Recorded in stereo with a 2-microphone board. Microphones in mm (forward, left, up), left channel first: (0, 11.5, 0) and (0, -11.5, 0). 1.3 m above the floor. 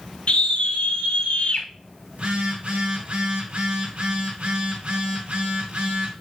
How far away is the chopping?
No chopping in this recording.